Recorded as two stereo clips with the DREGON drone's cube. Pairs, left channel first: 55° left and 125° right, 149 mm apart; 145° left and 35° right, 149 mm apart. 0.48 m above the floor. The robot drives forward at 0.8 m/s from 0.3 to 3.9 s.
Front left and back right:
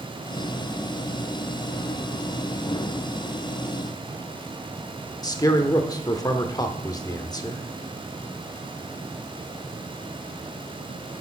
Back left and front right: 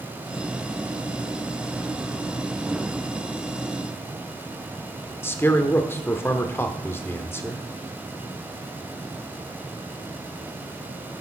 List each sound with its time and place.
5.2 s a man speaking: 90° left, 0.9 m